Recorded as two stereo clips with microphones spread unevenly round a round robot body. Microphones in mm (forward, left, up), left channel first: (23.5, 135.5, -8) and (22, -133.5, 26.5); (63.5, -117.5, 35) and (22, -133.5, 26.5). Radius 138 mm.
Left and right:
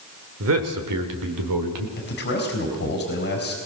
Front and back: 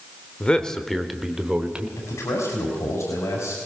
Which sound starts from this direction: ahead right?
A man speaking, at 0.4 s.